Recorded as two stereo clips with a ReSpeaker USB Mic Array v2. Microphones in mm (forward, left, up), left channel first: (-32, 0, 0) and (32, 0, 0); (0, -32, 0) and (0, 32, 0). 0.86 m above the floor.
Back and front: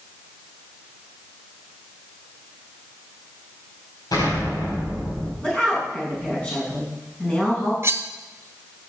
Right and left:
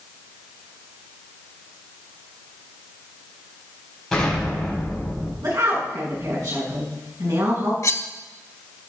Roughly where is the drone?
I don't hear a drone.